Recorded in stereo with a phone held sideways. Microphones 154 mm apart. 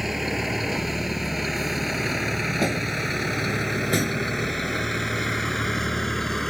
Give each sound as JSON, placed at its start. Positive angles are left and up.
{"t": 0.0, "sound": "a vehicle", "side_deg": 0}